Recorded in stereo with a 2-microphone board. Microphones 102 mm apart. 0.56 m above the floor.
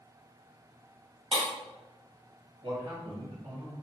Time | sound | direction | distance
1.3 | breaking glass | 65° right (ahead or behind) | 1.7 m
2.6 | a man speaking | 55° right (ahead or behind) | 1.9 m